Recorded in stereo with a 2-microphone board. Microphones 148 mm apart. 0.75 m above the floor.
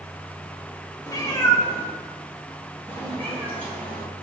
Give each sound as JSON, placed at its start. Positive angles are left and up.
{"t": 1.1, "sound": "a cat meowing", "side_deg": 25, "distance_m": 1.1}